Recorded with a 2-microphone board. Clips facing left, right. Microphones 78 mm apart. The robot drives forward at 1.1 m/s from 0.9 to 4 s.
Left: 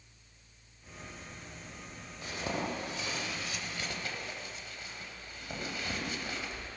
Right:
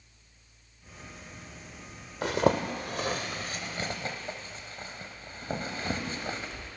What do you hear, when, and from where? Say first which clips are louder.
2.2 s a zipper: right 11 dB; 75° right (ahead or behind), 1.7 m; by 6.7 s 35° right (ahead or behind), 3 m